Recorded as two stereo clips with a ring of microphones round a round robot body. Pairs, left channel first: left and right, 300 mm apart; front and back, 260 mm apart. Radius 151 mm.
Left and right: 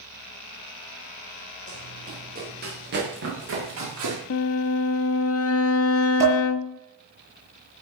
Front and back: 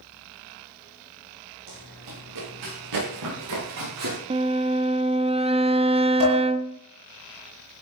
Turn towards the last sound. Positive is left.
turn(degrees=-170)